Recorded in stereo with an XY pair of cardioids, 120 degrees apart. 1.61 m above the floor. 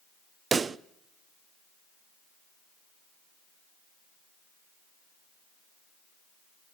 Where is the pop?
35° right, 0.5 m.